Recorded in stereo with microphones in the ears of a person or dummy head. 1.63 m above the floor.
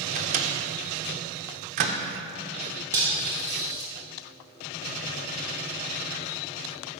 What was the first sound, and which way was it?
A microwave, 40° right (ahead or behind).